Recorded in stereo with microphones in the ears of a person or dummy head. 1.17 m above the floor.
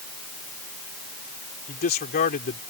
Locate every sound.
1.7 s a man speaking: 45° left (ahead or behind)